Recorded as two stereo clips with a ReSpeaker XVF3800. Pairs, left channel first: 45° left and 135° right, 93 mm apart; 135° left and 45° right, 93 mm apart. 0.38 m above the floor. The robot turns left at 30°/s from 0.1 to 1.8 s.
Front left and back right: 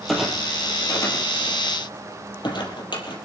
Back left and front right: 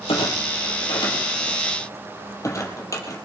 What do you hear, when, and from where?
0.1 s a clunk: 130° left, 4 m; by 3.1 s 80° left, 4 m